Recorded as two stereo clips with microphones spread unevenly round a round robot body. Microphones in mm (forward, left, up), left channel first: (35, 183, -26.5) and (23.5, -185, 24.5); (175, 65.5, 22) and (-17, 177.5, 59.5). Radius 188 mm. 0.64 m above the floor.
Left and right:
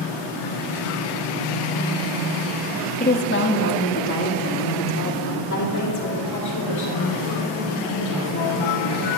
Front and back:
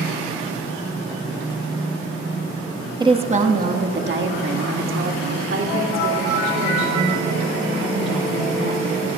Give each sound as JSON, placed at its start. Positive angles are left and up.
{"t": 3.0, "sound": "a woman speaking", "azimuth_deg": 80, "distance_m": 1.1}